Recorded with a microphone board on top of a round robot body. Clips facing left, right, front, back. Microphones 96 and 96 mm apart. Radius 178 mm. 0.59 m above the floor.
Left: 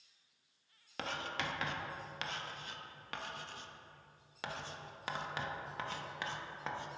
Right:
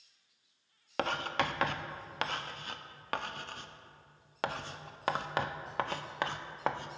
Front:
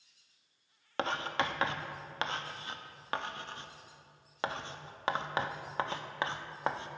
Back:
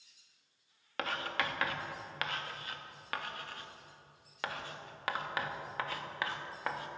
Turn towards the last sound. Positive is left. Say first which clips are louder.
# right 8 dB, front 3 dB
turn(degrees=-60)